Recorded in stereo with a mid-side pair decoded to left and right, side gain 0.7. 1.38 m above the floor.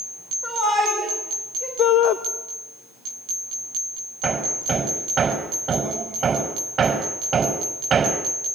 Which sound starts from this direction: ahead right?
Hammering, at 4.2 s.